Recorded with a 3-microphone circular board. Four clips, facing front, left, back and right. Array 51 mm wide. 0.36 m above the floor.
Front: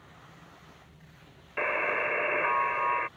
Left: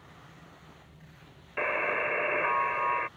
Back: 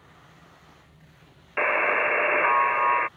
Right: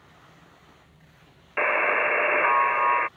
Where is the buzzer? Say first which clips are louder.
Right 7 dB, back 6 dB; 130° right.